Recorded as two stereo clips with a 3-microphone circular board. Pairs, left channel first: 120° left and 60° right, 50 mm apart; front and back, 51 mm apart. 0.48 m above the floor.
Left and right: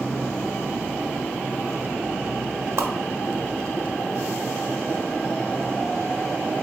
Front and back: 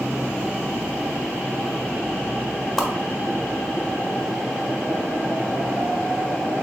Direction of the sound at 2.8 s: 80° right.